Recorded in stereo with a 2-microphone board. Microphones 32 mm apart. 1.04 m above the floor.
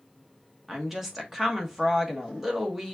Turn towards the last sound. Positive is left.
turn(degrees=-10)  # may be behind; listen again after turning